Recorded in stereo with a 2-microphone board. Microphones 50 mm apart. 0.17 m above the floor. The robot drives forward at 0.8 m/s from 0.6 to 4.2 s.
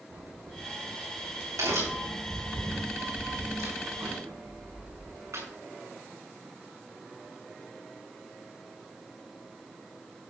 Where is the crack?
85° right, 7 m; by 5.5 s 70° right (ahead or behind), 7.5 m.